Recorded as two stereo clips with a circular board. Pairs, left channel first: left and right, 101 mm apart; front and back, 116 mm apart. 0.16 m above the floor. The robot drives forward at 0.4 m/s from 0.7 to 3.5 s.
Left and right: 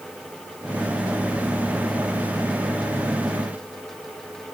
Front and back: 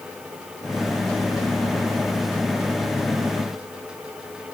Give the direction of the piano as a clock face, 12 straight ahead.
No piano in this recording.